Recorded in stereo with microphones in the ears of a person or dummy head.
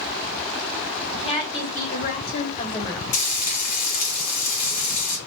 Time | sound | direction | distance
1.1 | a woman speaking | 25° left (ahead or behind) | 1.5 m
3.1 | frying | 40° left (ahead or behind) | 0.9 m